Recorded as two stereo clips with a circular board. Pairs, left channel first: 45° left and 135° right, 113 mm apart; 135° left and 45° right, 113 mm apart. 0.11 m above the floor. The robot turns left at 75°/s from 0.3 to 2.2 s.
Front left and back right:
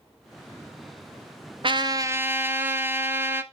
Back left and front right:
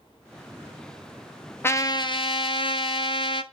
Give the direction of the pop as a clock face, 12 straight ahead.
I don't hear a pop.